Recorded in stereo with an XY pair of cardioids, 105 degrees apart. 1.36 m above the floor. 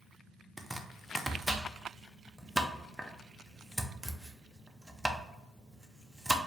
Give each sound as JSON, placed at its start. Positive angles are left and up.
{"t": 0.6, "sound": "chopping", "azimuth_deg": -5, "distance_m": 0.5}